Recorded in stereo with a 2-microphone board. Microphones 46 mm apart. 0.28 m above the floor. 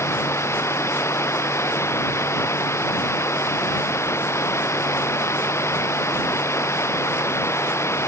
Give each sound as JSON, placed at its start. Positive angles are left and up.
{"t": 0.0, "sound": "running water", "side_deg": 75}